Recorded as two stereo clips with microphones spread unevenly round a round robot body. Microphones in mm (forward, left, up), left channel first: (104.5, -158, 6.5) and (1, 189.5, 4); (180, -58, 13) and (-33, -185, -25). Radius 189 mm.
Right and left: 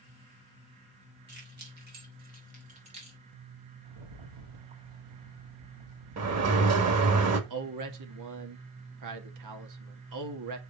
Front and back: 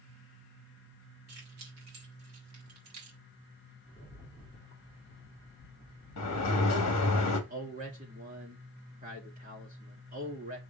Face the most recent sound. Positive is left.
turn(degrees=145)